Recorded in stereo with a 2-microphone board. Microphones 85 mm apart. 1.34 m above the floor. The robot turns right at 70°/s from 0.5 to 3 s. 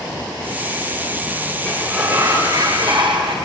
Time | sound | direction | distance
1.6 | a sliding door | 165° left | 4.5 m